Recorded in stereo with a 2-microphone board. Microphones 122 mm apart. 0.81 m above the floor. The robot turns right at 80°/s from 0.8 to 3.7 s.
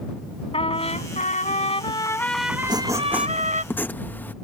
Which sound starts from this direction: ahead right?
Writing, at 2.6 s.